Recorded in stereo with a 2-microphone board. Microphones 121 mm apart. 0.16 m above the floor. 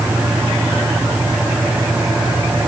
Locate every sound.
Only background noise.